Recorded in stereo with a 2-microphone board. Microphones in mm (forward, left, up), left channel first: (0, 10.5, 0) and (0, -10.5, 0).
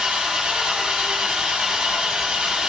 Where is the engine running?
45° right (ahead or behind), 1.2 m.